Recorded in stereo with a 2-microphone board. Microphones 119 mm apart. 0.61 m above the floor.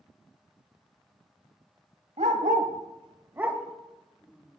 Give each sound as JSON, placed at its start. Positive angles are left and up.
{"t": 2.2, "sound": "a dog barking", "side_deg": -75, "distance_m": 1.2}